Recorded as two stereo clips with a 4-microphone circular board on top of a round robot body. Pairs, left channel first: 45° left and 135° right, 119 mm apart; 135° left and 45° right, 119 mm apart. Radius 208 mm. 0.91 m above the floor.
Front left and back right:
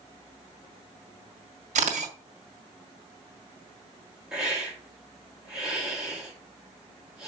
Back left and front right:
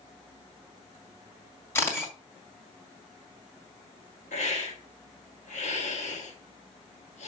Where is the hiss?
140° left, 5 m.